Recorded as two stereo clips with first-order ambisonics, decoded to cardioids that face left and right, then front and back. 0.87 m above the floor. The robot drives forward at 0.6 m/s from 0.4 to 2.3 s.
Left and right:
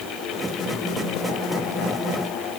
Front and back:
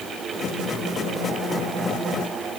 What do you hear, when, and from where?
Only background noise.